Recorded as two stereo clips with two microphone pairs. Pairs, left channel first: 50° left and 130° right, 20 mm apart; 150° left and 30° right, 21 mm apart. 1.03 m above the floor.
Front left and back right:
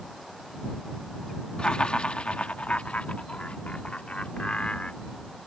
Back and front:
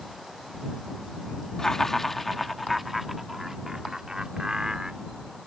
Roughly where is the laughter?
Left.